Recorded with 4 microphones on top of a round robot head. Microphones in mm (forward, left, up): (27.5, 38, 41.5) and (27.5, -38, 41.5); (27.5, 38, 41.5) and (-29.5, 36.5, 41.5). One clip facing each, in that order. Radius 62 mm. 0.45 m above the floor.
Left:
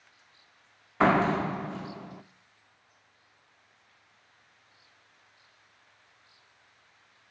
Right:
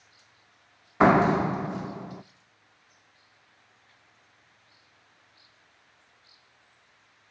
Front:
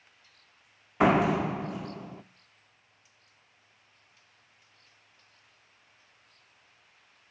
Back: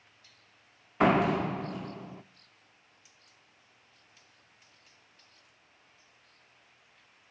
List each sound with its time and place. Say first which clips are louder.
1.0 s a door slam: right 4 dB, front 1 dB; 75° right, 0.5 m